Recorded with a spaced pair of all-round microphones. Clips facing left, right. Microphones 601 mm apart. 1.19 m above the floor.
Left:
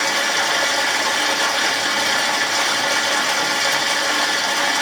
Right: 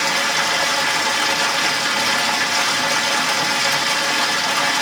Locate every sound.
0.0 s running water: 35° right (ahead or behind), 1.1 m